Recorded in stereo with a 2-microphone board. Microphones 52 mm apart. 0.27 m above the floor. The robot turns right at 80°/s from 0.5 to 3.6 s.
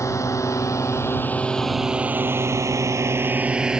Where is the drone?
75° left (ahead or behind); by 3.8 s 15° right (ahead or behind).